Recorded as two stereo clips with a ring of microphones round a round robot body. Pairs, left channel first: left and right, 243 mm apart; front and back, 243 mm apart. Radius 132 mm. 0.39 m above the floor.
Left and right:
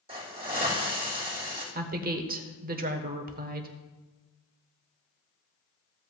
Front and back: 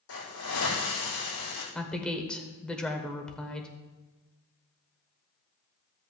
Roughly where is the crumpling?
I don't hear crumpling.